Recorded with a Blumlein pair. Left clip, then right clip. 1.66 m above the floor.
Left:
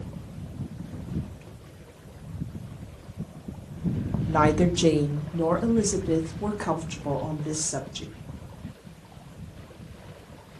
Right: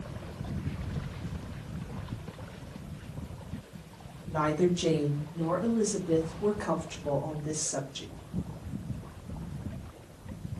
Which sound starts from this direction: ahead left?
A woman speaking, at 4.3 s.